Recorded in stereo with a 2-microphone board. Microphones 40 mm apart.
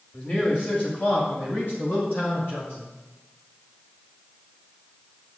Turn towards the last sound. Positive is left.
turn(degrees=75)  # may be behind; listen again after turning